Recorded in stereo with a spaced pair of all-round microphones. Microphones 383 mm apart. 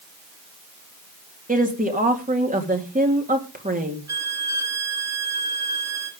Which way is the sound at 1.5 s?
20° right (ahead or behind).